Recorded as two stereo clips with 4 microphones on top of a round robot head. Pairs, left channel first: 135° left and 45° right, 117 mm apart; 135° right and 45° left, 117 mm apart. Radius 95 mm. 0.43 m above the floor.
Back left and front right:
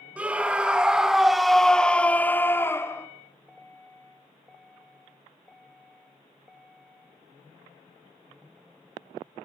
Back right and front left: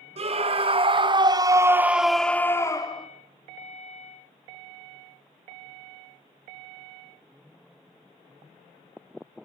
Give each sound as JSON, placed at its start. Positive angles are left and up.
{"t": 0.2, "sound": "a scream", "azimuth_deg": 35, "distance_m": 2.5}